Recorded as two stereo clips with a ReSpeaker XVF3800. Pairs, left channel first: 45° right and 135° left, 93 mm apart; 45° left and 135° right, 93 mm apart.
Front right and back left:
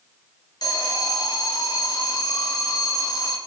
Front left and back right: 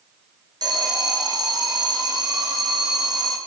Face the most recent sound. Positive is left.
turn(degrees=-90)